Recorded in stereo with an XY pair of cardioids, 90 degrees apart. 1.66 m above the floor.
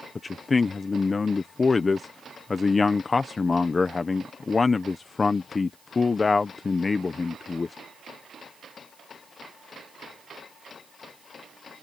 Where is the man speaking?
35° left.